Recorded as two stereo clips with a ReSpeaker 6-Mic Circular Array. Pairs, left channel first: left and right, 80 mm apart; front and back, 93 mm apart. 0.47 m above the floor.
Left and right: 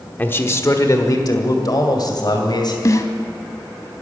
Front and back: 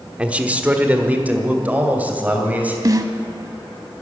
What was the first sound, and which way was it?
A man speaking, 120° left.